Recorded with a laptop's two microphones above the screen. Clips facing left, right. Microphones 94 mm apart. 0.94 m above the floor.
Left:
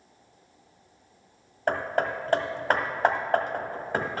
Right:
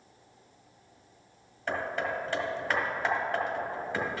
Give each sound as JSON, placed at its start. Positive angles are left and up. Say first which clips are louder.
{"t": 1.7, "sound": "hammering", "louder": "left 5 dB", "side_deg": 50, "distance_m": 1.0}